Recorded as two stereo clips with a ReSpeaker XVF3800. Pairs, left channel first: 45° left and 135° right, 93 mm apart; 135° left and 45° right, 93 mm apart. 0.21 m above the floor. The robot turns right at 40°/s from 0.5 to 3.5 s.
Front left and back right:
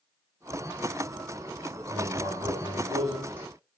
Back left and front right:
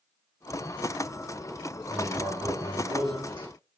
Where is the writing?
130° right, 9.5 m; by 3.5 s 65° right, 9.5 m.